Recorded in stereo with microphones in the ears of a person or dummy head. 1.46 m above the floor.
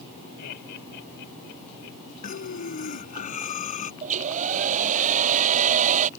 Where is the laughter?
55° left (ahead or behind); by 2.0 s 70° left (ahead or behind).